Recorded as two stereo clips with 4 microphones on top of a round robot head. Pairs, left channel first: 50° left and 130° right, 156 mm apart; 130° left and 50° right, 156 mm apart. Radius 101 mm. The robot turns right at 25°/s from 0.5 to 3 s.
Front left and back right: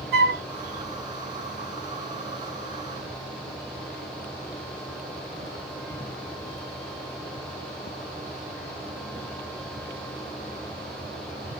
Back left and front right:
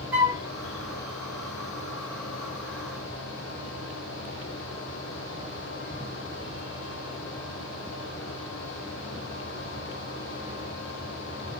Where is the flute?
130° right, 1.1 m.